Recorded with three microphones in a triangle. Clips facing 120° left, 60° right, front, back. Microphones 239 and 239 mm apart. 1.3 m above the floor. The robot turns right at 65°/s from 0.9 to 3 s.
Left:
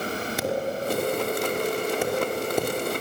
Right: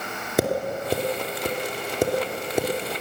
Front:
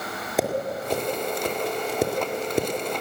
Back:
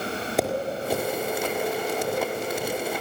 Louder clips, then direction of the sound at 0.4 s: Right 5 dB, front 1 dB; 90° right.